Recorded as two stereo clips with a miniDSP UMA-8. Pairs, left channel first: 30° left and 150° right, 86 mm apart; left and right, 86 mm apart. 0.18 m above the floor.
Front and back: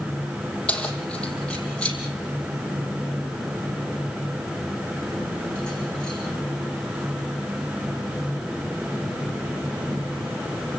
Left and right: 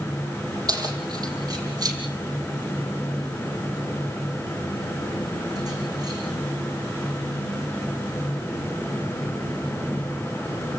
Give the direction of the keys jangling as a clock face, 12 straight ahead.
2 o'clock.